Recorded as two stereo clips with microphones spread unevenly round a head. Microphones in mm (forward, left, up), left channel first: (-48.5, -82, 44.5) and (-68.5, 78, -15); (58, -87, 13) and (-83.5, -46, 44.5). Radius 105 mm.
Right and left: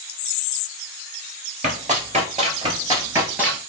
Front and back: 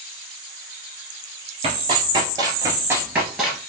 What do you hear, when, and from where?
1.6 s running footsteps: 145° left, 1.7 m; by 3.6 s 130° right, 1.3 m